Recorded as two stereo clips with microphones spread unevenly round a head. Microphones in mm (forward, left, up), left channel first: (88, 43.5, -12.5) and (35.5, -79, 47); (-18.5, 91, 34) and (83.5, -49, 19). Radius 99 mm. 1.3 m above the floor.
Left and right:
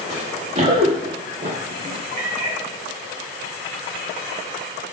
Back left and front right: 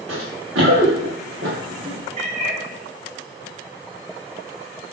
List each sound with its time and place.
0.1 s running footsteps: 85° right, 5 m; by 1.9 s 105° right, 5.5 m
2.2 s a cat meowing: 115° right, 4 m